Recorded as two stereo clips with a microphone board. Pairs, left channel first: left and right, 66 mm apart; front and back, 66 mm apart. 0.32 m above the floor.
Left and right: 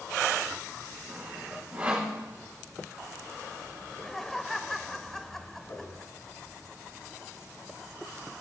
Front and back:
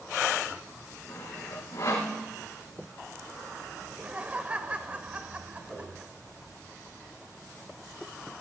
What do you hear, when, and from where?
1.1 s sawing: 25° right, 6 m
3.8 s laughter: 165° left, 0.9 m
5.7 s a whoosh: 80° left, 3 m